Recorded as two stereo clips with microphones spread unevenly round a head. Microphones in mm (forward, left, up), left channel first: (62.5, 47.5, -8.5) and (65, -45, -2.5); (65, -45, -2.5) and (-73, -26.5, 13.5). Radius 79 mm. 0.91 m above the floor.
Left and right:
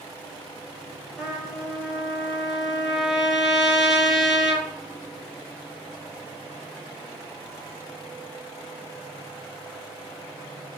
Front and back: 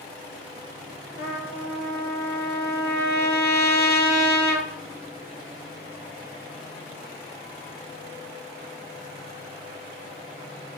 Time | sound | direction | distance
1.2 | a trumpet | straight ahead | 3 m